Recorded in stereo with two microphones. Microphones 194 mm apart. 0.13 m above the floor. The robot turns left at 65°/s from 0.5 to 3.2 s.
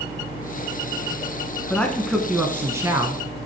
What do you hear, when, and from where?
1.7 s a man speaking: 10° left (ahead or behind), 1.1 m; by 3.2 s 20° right (ahead or behind), 1.1 m